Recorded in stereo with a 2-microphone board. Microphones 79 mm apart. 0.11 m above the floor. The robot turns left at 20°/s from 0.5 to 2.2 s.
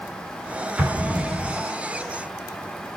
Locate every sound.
0.8 s an explosion: 20° right (ahead or behind), 1.5 m